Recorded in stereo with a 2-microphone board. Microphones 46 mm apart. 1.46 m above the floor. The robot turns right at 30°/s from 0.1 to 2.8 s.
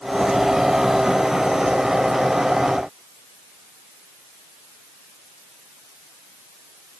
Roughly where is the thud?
I don't hear a thud.